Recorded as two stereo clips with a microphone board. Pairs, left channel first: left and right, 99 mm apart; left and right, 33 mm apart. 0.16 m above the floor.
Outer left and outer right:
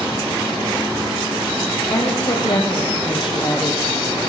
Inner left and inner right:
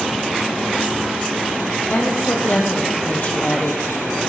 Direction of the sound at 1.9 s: 60° left (ahead or behind).